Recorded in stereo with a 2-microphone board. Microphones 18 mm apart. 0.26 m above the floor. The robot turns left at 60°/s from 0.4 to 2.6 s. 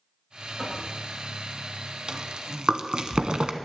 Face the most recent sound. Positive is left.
turn(degrees=-70)  # may be behind; listen again after turning